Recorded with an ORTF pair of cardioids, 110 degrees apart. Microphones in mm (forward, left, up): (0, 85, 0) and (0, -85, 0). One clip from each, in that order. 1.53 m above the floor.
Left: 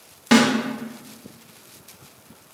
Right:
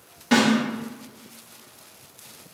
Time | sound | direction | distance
0.3 | a snare drum | 40° left | 0.7 m